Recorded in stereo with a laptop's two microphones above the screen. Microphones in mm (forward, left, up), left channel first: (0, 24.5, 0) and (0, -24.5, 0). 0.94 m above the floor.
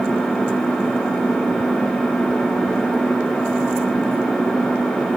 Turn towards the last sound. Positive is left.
turn(degrees=5)  # may be behind; listen again after turning